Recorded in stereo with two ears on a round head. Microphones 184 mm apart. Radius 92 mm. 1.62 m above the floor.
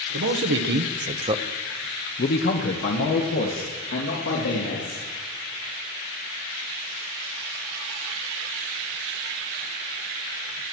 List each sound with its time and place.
0.1 s a man speaking: 70° right (ahead or behind), 1.8 m; by 5.0 s 80° left, 4 m